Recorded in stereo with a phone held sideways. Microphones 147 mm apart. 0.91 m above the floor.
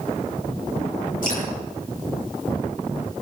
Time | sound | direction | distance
1.2 | dripping | 70° left (ahead or behind) | 9 m